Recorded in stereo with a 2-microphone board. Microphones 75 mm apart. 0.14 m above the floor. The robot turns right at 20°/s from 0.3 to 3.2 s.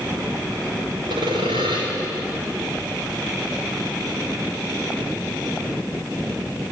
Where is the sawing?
80° right, 6 m; by 1.8 s 85° right, 6 m.